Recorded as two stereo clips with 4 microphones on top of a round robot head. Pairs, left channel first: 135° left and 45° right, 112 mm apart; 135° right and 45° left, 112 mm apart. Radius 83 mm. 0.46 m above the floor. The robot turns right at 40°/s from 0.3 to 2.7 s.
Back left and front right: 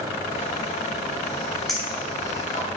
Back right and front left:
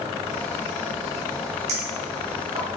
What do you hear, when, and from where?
1.7 s a clink: 45° left, 2.5 m; by 2.7 s 85° left, 2.5 m